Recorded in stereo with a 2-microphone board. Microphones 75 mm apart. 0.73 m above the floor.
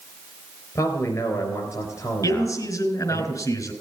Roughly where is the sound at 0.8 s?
Left.